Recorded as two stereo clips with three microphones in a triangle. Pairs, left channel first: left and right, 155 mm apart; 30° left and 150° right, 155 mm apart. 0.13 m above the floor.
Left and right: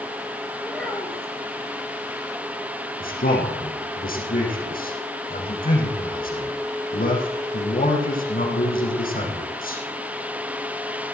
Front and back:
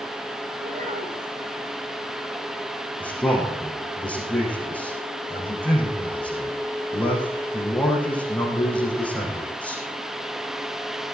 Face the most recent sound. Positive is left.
turn(degrees=110)